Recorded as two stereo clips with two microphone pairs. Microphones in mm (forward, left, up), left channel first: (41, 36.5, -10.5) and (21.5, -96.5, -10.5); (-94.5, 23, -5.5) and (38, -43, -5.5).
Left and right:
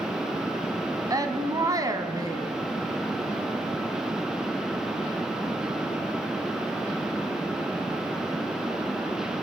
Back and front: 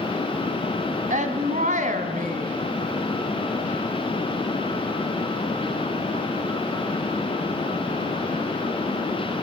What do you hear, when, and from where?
1.1 s a woman speaking: 40° right, 1.8 m